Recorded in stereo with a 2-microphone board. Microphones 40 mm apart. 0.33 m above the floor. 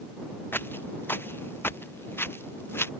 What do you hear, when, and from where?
0.5 s footsteps: 60° left (ahead or behind); by 2.9 s 70° left (ahead or behind)